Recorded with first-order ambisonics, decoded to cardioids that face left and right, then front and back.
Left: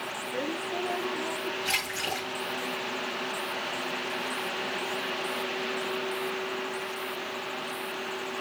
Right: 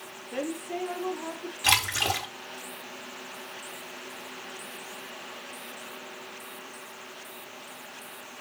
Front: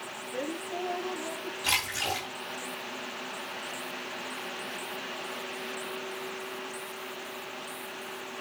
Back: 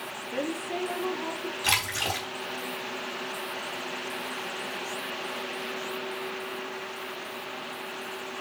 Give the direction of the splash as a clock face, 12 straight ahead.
3 o'clock.